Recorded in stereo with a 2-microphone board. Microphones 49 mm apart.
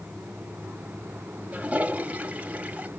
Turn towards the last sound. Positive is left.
turn(degrees=-30)  # may be behind; listen again after turning